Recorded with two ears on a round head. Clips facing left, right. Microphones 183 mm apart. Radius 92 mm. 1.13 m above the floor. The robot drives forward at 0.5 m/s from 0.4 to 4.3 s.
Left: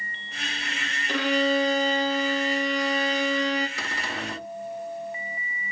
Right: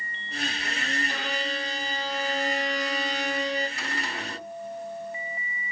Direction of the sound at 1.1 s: 55° left (ahead or behind).